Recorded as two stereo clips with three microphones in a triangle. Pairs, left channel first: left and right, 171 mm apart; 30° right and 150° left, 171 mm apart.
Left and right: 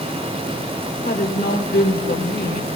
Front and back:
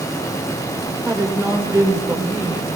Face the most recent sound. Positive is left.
turn(degrees=75)